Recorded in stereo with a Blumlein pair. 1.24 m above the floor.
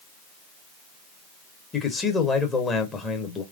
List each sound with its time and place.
1.7 s a man speaking: 15° left, 1.1 m